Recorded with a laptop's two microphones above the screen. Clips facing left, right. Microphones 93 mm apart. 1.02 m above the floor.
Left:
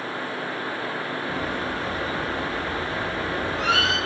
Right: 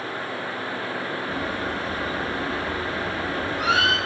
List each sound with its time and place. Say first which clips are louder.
1.3 s a bird: left 1 dB; 10° right (ahead or behind), 5.5 m